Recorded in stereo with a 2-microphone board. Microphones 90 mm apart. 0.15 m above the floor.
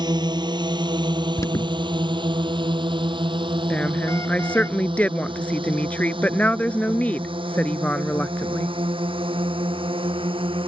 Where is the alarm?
35° left (ahead or behind).